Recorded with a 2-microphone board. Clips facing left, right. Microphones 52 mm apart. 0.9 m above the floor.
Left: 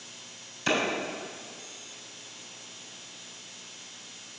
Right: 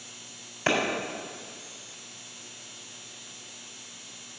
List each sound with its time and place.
0.7 s a clap: 55° right (ahead or behind), 3.5 m